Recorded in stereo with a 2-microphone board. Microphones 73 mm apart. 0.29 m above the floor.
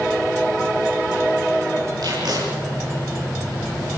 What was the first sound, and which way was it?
Tape being pulled, 65° right (ahead or behind).